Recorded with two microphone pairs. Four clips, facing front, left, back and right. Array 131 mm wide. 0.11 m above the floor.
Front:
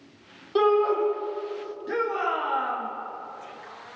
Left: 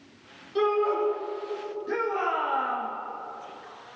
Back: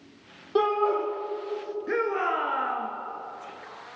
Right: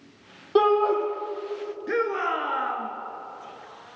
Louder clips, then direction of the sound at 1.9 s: Right 2 dB, even; 120° right.